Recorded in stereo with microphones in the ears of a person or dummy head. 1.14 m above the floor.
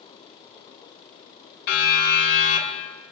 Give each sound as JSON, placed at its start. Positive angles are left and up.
{"t": 1.7, "sound": "a siren", "side_deg": 55, "distance_m": 8.0}